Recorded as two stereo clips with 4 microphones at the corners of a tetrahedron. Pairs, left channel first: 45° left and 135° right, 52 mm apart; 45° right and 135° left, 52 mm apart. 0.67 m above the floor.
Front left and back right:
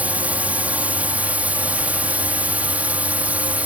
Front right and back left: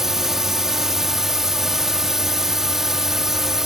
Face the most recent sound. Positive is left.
turn(degrees=-150)